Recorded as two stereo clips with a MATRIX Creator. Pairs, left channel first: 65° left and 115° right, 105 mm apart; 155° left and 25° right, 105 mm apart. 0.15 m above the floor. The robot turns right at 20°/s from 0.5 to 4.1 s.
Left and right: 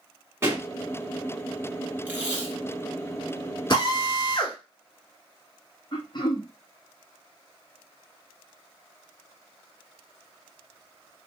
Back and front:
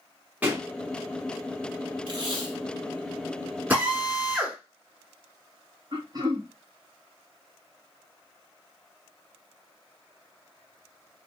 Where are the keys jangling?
No keys jangling in this recording.